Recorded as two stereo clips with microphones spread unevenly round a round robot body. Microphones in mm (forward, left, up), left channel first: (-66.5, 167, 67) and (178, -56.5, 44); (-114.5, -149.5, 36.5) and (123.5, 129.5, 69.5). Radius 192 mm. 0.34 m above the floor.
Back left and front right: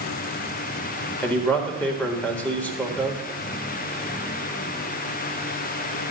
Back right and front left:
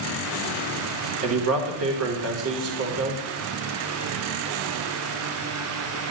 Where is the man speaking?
50° left, 1.3 m.